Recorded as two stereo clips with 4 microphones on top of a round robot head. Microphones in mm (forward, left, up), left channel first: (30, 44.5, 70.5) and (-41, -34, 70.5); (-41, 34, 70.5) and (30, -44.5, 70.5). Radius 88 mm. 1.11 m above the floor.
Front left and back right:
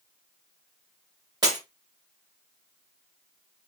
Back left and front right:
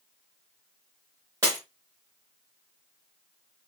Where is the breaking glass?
95° right, 1.0 m.